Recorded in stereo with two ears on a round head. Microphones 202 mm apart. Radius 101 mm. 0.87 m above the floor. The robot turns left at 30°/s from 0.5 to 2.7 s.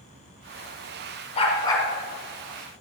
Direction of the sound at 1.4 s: 25° left (ahead or behind).